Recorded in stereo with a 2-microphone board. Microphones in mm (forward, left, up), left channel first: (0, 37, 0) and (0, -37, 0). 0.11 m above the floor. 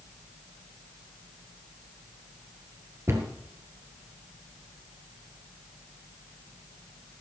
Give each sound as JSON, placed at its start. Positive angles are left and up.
{"t": 3.1, "sound": "a cupboard door", "side_deg": -35, "distance_m": 2.0}